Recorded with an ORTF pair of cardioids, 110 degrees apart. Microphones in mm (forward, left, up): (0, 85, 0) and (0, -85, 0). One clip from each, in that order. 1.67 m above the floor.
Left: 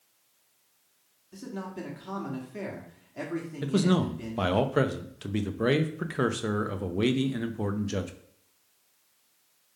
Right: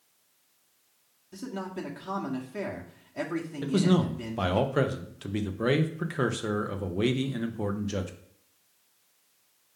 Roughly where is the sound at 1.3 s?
Ahead.